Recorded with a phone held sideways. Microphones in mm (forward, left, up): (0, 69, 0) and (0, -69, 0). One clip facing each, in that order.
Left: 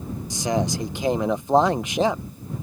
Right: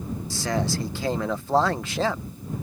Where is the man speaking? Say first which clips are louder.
Left 3 dB; 20° left (ahead or behind).